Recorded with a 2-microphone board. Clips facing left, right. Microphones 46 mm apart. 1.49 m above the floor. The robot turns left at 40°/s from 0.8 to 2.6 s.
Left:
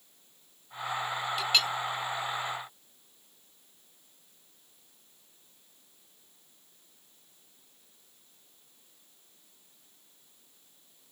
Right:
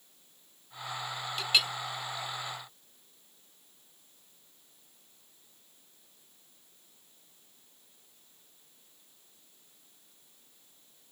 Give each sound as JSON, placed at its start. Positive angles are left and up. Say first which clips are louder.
{"t": 1.4, "sound": "a clink", "louder": "even", "side_deg": 0}